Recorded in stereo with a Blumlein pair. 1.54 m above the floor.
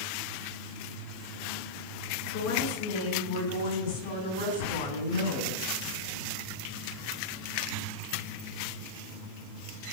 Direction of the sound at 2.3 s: 45° left.